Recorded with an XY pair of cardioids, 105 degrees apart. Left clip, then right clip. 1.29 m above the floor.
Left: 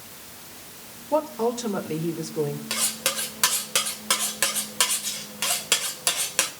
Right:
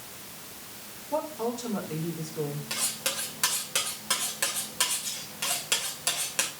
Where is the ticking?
I don't hear ticking.